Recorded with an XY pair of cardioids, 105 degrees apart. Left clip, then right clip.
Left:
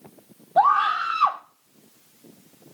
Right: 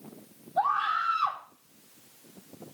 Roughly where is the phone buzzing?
No phone buzzing in this recording.